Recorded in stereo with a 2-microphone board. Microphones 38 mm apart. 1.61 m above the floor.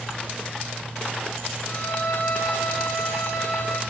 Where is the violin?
85° left, 7 m.